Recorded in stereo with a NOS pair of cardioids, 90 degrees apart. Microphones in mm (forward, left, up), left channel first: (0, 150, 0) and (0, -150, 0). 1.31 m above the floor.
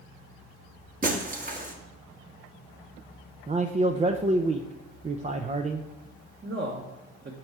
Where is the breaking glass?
30° right, 1.5 m.